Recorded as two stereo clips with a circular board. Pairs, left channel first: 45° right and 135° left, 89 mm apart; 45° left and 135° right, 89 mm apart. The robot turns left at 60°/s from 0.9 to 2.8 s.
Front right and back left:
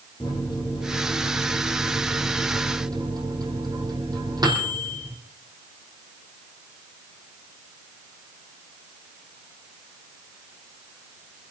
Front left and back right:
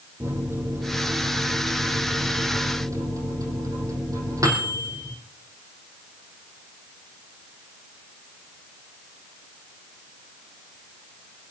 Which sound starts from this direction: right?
A microwave, at 0.2 s.